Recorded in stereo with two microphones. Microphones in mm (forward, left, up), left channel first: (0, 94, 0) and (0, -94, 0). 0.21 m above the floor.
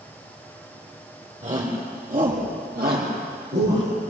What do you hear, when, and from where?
1.4 s a shout: 40° right (ahead or behind), 6 m; by 3.9 s 75° right (ahead or behind), 5.5 m